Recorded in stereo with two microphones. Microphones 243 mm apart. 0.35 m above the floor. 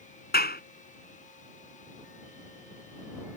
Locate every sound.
0.3 s a clap: 40° left (ahead or behind)